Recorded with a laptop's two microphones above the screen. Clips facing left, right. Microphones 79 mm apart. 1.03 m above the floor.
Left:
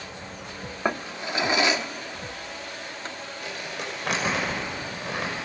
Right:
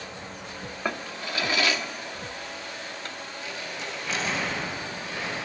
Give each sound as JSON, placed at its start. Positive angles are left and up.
{"t": 0.8, "sound": "a drawer", "side_deg": 20, "distance_m": 0.6}
{"t": 3.4, "sound": "crumpling", "side_deg": 65, "distance_m": 6.0}